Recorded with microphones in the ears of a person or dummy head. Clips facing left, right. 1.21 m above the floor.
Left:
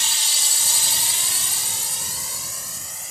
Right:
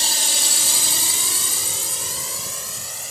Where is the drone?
35° right (ahead or behind); by 3.1 s 50° right (ahead or behind).